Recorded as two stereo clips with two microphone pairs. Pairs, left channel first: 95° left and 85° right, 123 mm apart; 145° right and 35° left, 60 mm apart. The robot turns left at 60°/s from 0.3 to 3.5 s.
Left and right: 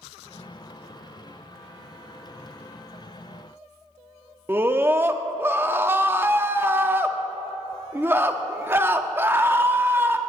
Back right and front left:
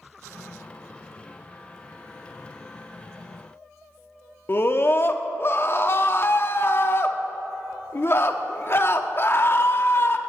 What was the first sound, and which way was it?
A scream, 145° right.